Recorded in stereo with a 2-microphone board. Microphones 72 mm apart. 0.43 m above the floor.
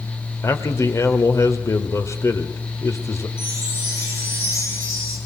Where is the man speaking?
40° left (ahead or behind), 1.7 m.